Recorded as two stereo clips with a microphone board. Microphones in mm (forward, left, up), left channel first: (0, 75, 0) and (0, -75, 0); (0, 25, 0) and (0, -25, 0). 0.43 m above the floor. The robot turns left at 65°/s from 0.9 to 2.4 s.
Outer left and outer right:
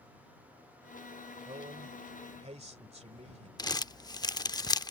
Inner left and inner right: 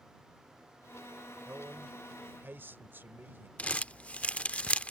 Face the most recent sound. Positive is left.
turn(degrees=25)  # may be behind; listen again after turning